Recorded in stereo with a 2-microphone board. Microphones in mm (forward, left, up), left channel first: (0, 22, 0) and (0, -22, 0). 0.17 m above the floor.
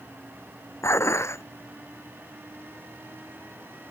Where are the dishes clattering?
80° left.